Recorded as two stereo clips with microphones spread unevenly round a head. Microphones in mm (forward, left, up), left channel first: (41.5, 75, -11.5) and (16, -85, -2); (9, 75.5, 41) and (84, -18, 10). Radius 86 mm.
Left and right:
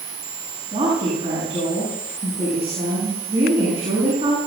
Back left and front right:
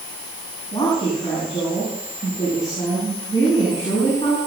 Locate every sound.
0.7 s a woman speaking: 160° right, 8.5 m